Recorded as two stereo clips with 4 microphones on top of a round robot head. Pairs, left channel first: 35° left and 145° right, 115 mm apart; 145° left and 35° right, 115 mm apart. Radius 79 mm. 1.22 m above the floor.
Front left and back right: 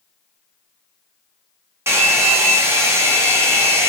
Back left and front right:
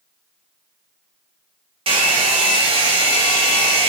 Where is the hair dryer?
75° right, 1.9 m.